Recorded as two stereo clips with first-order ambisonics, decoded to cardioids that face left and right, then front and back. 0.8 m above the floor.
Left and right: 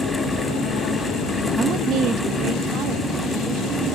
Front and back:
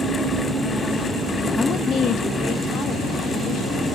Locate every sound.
1.6 s a woman speaking: 55° right, 0.6 m; by 3.9 s 50° right, 3.5 m